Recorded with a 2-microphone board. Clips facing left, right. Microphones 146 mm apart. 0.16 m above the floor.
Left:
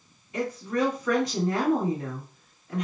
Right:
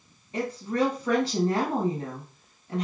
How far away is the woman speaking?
About 1.4 m.